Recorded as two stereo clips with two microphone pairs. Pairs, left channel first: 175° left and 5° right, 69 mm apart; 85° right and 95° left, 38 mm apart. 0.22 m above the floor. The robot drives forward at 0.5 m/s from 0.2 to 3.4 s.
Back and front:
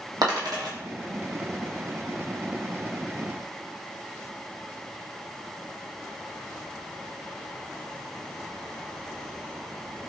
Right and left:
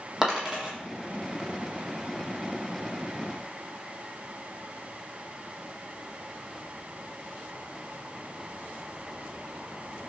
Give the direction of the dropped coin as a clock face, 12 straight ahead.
12 o'clock.